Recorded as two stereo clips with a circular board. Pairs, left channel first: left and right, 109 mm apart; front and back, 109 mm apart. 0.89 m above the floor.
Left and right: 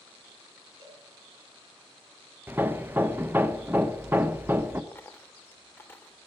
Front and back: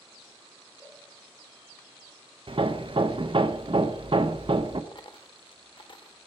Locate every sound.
0.8 s a cowbell: 55° right, 4 m
2.5 s hammering: 160° right, 0.5 m
4.9 s a dropped coin: 25° left, 0.7 m